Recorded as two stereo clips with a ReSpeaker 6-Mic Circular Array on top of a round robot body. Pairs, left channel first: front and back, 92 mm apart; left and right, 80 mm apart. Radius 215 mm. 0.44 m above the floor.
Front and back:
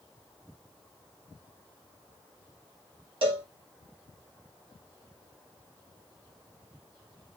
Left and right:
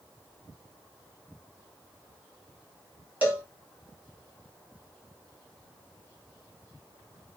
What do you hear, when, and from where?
3.2 s a cowbell: 165° right, 2.5 m